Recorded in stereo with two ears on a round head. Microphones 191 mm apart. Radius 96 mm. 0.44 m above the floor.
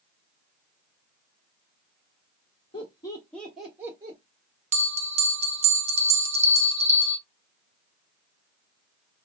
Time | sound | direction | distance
2.7 | laughter | 25° left (ahead or behind) | 1.3 m
4.7 | a bell | 30° right (ahead or behind) | 0.6 m